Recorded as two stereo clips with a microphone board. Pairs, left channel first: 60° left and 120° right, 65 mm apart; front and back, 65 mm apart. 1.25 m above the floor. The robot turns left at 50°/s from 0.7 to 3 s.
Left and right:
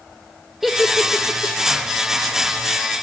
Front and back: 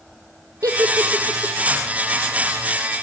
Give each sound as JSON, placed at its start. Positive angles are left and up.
{"t": 0.6, "sound": "a giggle", "azimuth_deg": 150, "distance_m": 1.2}